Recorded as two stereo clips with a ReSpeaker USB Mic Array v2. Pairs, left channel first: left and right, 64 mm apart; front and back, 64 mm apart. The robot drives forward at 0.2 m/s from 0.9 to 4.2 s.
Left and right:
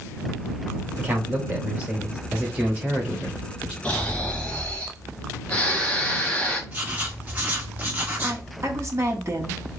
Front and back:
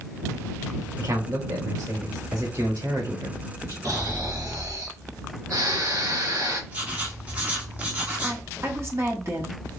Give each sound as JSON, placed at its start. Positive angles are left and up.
{"t": 1.0, "sound": "a man speaking", "azimuth_deg": -160, "distance_m": 1.9}
{"t": 3.8, "sound": "snoring", "azimuth_deg": 160, "distance_m": 1.3}
{"t": 6.7, "sound": "writing", "azimuth_deg": -135, "distance_m": 1.2}
{"t": 8.2, "sound": "a woman speaking", "azimuth_deg": -135, "distance_m": 0.9}